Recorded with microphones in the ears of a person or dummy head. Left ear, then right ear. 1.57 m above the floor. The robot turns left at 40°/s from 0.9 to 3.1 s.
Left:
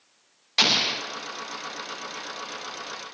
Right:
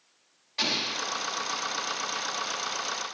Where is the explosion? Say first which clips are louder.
Left 7 dB; 55° left (ahead or behind), 0.8 m; by 1.0 s 50° left (ahead or behind), 0.8 m.